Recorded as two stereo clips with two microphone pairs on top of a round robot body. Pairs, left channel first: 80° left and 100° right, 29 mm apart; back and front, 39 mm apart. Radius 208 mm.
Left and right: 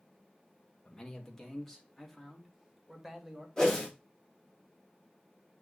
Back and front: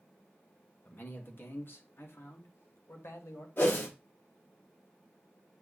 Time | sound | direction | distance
0.8 | a man speaking | 145° left | 2 m
3.6 | a whoosh | 150° left | 4.5 m